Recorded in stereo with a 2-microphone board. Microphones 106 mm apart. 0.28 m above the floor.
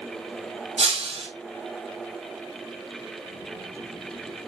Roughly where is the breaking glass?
Right.